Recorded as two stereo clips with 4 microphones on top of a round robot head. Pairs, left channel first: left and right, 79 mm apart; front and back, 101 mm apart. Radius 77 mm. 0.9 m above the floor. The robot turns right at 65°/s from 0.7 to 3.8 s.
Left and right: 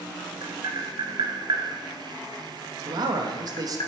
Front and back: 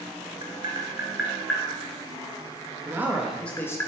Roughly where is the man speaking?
Behind right.